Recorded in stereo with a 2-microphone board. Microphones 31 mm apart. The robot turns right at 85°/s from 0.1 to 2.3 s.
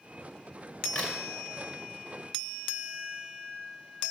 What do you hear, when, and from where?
0.9 s a crack: 40° left (ahead or behind), 2.5 m; by 1.2 s 50° left (ahead or behind), 2.5 m